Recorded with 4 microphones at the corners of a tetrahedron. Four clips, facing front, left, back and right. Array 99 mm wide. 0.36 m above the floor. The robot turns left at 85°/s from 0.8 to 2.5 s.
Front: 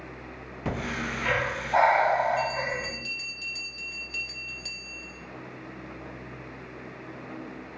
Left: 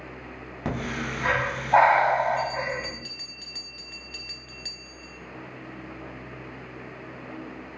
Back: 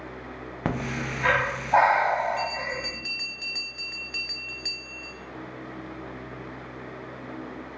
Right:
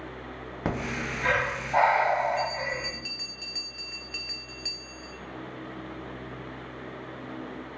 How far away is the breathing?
About 0.6 m.